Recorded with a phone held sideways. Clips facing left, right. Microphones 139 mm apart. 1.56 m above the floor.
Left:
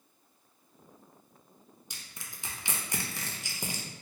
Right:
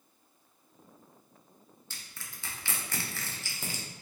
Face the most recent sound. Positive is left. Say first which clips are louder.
# even
turn(degrees=15)  # may be behind; listen again after turning